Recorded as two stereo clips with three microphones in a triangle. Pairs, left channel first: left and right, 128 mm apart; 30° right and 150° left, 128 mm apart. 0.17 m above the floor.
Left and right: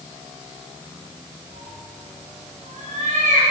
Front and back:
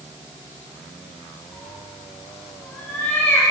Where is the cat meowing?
110° right, 10 m; by 3.5 s 105° right, 8.5 m.